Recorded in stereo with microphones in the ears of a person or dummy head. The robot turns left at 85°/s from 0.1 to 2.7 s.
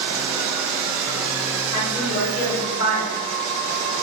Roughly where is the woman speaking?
Behind left.